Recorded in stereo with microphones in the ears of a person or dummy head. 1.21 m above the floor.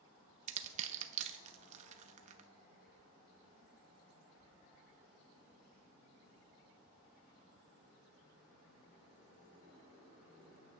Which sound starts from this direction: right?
Crushing, at 0.5 s.